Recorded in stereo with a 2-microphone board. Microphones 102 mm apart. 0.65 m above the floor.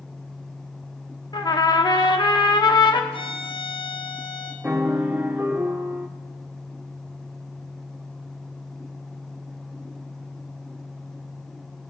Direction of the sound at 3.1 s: 75° left (ahead or behind).